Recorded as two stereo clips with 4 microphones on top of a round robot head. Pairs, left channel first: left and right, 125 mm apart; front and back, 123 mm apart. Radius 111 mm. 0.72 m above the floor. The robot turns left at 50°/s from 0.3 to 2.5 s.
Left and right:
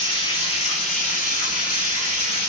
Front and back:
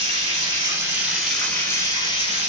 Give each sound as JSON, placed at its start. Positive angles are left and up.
{"t": 0.0, "sound": "running water", "azimuth_deg": 140, "distance_m": 3.0}